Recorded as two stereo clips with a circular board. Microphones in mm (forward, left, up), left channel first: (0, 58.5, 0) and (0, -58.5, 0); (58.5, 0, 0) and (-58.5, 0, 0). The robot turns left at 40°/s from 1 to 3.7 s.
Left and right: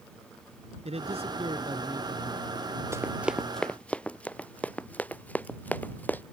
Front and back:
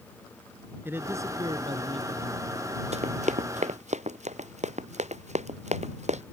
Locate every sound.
0.8 s a man speaking: 110° right; by 2.5 s 170° right
2.9 s running footsteps: 155° right; by 6.2 s 165° left